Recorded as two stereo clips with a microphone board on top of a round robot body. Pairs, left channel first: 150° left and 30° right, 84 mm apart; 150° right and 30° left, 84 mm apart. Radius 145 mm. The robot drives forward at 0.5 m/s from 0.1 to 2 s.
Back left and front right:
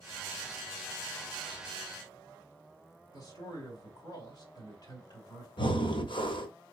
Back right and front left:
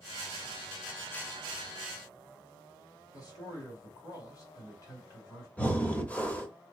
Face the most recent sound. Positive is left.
turn(degrees=135)